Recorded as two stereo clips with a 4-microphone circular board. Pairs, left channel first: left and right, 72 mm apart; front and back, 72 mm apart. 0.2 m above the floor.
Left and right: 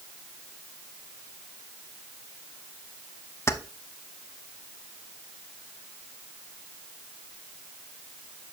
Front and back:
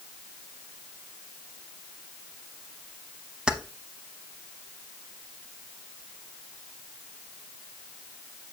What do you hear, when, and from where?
3.5 s keys jangling: 110° left, 0.8 m